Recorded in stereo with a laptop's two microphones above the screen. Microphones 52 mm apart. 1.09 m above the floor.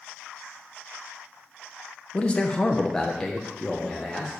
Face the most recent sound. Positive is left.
turn(degrees=-5)  # may be behind; listen again after turning